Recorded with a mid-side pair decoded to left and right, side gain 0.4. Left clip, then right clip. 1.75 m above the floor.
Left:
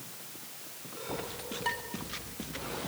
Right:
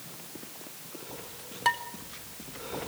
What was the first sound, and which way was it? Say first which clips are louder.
Dishes clattering: right 8 dB; 65° right.